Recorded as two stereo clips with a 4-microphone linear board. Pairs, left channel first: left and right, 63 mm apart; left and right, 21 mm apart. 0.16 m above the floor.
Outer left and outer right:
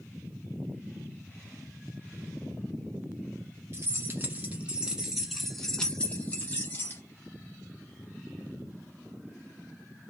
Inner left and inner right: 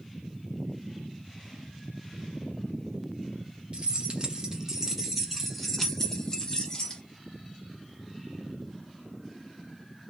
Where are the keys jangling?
40° right (ahead or behind), 1.3 m; by 7.0 s 35° left (ahead or behind), 1.5 m.